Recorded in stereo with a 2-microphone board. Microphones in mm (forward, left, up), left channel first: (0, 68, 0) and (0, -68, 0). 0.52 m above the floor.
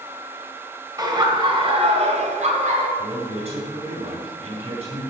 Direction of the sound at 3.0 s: 50° right (ahead or behind).